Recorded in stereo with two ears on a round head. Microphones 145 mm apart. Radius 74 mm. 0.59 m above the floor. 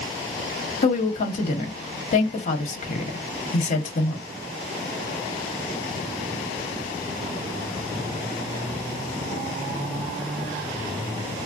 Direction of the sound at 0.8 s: 45° left (ahead or behind).